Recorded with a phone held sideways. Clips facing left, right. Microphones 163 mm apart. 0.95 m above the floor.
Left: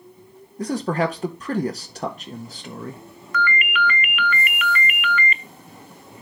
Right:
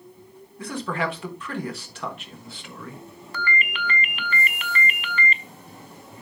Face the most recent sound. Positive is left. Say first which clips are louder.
# left 6 dB
turn(degrees=-30)  # may be behind; listen again after turning